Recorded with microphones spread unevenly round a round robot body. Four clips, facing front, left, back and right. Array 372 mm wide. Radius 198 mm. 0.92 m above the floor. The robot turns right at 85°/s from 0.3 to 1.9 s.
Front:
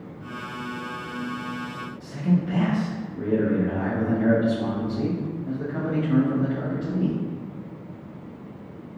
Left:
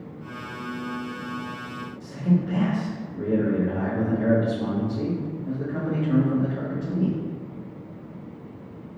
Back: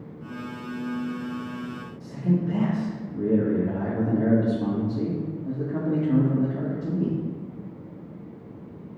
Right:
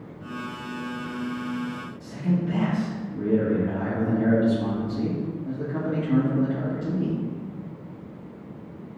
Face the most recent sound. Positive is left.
turn(degrees=-160)